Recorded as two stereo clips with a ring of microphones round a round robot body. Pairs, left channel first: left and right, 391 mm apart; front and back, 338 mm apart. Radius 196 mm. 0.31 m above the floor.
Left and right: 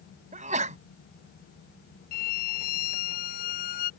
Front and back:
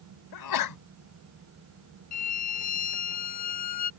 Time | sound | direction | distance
0.3 | a sneeze | 20° right | ?
2.1 | a violin | 40° left | ?